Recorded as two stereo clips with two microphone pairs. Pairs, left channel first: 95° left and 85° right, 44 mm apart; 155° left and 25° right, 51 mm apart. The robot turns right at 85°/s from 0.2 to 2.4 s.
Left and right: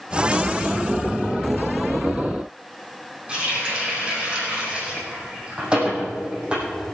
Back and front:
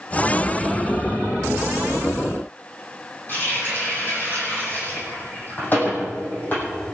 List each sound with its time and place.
3.3 s a running tap: 155° right, 5 m